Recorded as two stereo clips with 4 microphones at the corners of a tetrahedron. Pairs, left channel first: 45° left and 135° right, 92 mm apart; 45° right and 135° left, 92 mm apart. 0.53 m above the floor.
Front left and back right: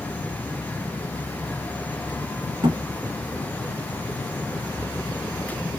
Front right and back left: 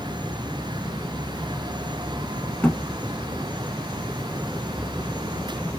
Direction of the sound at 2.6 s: 120° right.